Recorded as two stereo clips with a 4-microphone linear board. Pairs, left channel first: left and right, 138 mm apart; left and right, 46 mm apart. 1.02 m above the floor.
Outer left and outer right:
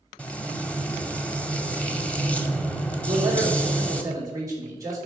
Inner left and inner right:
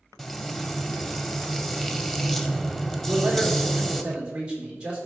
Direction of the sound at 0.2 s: 10° left (ahead or behind).